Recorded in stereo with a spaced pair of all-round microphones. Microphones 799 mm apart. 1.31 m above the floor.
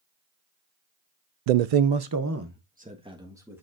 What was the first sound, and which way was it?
A man speaking, 75° right (ahead or behind).